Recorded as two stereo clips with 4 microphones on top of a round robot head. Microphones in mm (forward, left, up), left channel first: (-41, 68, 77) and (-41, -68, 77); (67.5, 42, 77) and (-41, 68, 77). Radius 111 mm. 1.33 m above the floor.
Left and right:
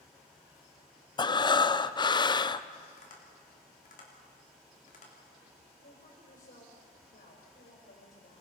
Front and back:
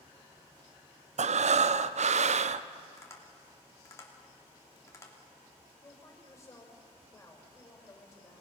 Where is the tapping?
50° left, 3 m.